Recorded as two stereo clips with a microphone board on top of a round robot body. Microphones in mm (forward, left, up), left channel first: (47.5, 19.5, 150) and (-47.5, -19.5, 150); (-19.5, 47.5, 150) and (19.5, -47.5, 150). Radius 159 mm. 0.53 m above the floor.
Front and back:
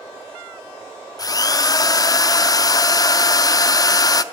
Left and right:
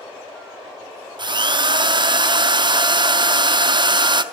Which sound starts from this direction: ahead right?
A drill, at 1.2 s.